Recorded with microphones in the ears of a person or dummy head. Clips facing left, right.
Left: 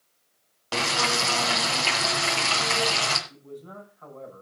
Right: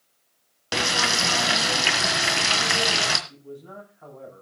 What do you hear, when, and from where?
0.7 s frying: 20° right (ahead or behind), 1.8 m
3.3 s a man speaking: 5° right (ahead or behind), 9 m